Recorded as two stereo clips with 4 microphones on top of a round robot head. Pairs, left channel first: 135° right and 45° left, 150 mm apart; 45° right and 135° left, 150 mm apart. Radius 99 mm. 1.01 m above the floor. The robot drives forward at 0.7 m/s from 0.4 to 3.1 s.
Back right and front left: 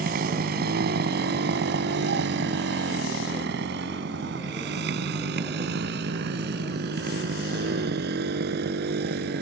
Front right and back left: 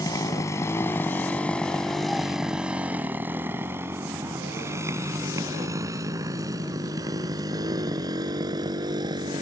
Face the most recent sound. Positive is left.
turn(degrees=70)